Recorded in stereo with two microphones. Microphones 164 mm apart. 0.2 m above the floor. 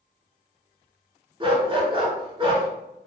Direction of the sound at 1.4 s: 30° right (ahead or behind).